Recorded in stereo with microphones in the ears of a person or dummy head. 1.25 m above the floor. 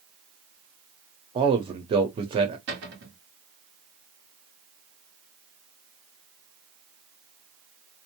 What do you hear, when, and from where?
1.4 s a man speaking: 30° right (ahead or behind), 0.8 m
2.7 s a cupboard door: 60° right (ahead or behind), 1.3 m